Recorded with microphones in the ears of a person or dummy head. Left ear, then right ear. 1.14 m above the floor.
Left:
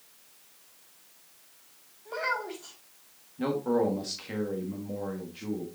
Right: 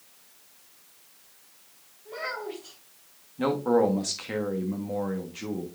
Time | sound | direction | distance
2.0 | a child speaking | 55° left (ahead or behind) | 4 m
3.4 | a man speaking | 25° right (ahead or behind) | 1.3 m